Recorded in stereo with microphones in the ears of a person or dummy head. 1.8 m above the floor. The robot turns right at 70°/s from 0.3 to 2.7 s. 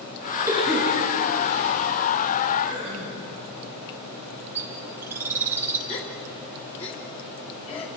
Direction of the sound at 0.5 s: 20° right (ahead or behind).